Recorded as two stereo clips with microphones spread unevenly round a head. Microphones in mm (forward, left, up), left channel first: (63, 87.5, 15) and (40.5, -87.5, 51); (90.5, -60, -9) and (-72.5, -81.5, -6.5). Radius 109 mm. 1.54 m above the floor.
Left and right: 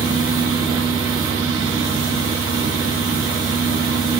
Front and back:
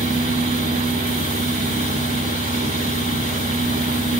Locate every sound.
0.0 s a fan: 130° right, 2.5 m